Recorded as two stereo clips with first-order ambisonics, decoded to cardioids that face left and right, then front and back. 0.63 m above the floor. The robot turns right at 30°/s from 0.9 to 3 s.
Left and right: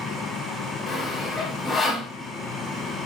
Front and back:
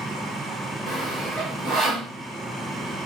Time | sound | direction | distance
0.9 | sawing | 150° left | 1.1 m